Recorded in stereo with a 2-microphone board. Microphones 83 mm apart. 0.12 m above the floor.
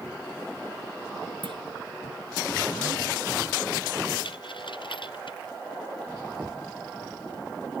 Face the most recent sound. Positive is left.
turn(degrees=-20)  # may be behind; listen again after turning